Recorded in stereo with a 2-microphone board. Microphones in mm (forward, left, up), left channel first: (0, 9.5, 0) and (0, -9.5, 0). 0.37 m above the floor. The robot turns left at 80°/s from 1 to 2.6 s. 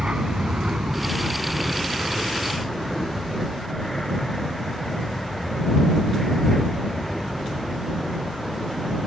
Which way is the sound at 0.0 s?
55° right (ahead or behind).